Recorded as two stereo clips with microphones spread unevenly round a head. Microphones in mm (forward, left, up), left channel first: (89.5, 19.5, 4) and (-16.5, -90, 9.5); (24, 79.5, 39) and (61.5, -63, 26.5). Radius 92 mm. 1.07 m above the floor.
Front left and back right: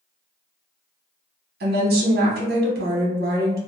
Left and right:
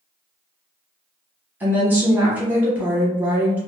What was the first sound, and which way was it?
A woman speaking, 150° right.